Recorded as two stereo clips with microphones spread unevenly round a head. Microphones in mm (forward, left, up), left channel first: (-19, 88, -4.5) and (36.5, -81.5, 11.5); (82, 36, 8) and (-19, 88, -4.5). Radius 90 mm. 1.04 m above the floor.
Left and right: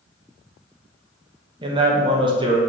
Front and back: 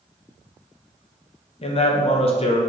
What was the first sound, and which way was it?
A man speaking, 10° right.